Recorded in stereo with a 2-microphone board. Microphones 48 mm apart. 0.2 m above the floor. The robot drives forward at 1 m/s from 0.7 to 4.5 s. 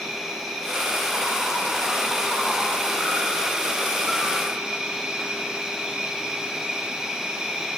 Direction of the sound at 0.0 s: 10° right (ahead or behind).